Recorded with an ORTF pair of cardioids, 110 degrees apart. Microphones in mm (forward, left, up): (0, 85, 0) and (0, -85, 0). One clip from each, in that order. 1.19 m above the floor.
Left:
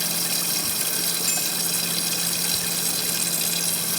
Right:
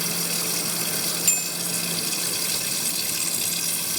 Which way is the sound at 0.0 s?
55° left.